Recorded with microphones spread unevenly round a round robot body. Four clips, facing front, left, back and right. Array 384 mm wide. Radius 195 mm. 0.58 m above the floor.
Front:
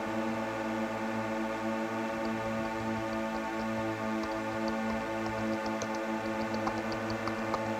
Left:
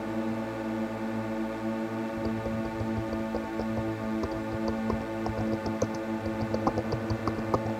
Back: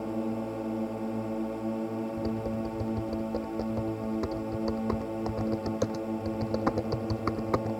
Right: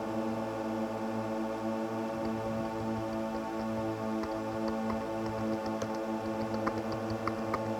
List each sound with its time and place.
0.0 s a drone: 130° left
2.2 s typing on a keyboard: 135° left